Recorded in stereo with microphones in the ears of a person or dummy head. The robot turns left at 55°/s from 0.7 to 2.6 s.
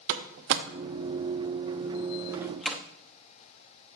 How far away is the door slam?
About 0.8 m.